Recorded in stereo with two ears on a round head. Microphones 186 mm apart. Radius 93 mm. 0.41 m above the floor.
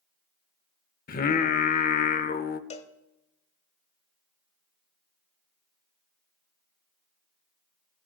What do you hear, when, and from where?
1.1 s singing: 45° left (ahead or behind), 0.7 m
2.7 s a cowbell: 30° left (ahead or behind), 0.8 m